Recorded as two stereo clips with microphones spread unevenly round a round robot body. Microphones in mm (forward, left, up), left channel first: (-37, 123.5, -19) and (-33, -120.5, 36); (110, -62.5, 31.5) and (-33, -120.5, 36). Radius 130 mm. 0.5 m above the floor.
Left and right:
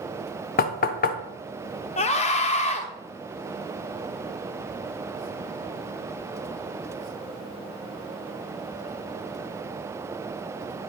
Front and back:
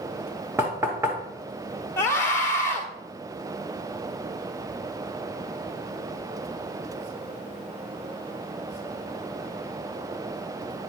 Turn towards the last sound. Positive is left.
turn(degrees=85)